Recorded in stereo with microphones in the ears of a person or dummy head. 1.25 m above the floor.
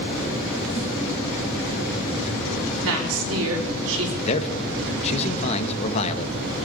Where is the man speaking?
35° left (ahead or behind), 1.5 m.